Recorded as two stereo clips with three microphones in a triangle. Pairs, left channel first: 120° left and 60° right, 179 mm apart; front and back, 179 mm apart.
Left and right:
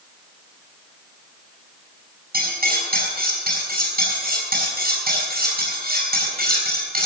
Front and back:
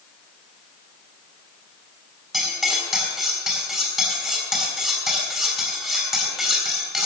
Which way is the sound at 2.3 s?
90° right.